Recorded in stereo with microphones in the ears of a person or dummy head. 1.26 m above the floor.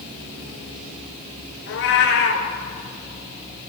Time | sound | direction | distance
1.7 | a cat meowing | 65° left (ahead or behind) | 3 m